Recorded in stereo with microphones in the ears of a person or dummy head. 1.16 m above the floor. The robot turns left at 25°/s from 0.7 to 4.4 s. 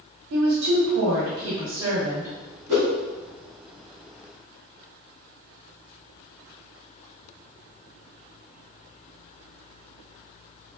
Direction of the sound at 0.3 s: 95° right.